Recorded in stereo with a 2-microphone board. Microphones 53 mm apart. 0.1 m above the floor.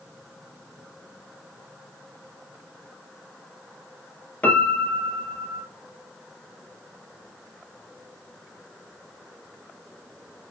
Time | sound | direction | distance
4.4 | a piano | 30° left (ahead or behind) | 1.3 m